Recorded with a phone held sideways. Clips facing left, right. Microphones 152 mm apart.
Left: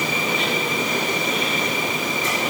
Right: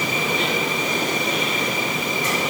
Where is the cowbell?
No cowbell in this recording.